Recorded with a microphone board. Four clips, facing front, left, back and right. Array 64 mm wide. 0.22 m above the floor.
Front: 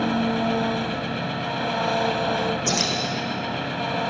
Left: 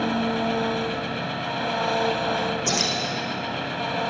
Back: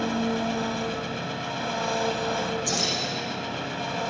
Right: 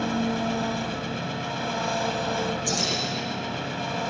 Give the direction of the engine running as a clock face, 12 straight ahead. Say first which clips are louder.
Left 2 dB, front 4 dB; 11 o'clock.